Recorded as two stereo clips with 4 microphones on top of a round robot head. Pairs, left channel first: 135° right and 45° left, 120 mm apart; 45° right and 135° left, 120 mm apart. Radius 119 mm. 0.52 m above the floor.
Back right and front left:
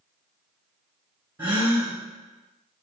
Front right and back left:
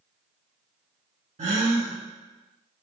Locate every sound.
1.4 s a gasp: 115° left, 1.9 m